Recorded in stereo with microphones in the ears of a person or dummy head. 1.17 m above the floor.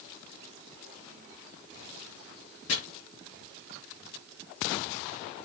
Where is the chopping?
80° left, 4.5 m.